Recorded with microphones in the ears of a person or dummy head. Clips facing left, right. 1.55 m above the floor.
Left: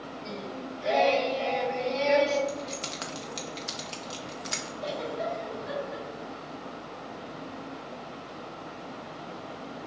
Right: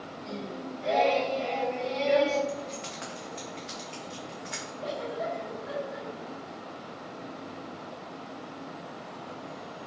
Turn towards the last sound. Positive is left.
turn(degrees=65)  # may be behind; listen again after turning